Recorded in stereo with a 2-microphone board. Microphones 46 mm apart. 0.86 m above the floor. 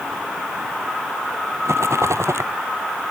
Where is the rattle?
85° right.